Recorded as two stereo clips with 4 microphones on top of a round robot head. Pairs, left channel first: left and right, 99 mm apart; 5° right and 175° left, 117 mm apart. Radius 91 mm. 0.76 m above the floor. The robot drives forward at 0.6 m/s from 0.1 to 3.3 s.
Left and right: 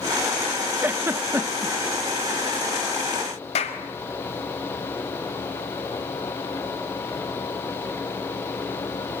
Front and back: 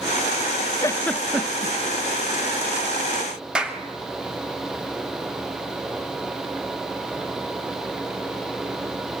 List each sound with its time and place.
0.8 s a giggle: 35° right, 0.6 m; by 1.8 s 150° right, 0.6 m
3.5 s a clap: 95° left, 3.5 m